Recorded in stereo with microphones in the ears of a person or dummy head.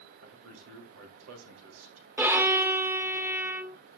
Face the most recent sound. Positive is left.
turn(degrees=-10)  # may be behind; listen again after turning